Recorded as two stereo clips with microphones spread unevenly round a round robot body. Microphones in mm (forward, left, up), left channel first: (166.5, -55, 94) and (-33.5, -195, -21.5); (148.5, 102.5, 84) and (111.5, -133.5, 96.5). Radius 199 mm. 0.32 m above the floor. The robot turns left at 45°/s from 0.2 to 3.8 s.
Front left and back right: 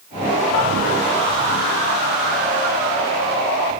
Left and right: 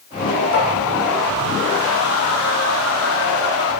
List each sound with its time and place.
0.5 s tapping: 100° left, 4.5 m; by 0.7 s 95° left, 4.5 m